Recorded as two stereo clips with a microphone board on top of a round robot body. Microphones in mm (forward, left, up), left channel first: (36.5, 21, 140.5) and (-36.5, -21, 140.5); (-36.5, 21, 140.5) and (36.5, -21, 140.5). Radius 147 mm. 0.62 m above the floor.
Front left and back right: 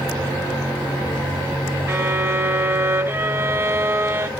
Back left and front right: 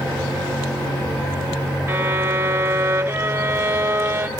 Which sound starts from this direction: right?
A violin, at 1.9 s.